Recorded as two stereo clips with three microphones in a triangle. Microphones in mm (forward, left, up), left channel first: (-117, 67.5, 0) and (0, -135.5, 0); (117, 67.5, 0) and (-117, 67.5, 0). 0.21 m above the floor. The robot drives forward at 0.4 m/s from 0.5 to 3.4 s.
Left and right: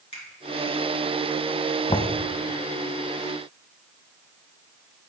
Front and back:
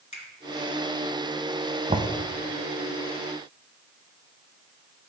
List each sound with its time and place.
0.1 s a finger snap: 60° left, 3 m
1.9 s knocking: 150° left, 0.7 m; by 2.2 s 160° left, 0.8 m